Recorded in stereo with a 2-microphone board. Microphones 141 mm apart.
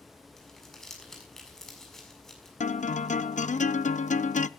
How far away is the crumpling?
About 6.5 m.